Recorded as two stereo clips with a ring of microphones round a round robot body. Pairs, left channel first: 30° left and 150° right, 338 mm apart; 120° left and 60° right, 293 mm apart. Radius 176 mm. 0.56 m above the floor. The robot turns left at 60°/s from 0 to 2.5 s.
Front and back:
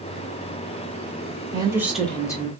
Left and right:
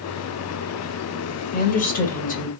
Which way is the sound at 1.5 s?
150° left.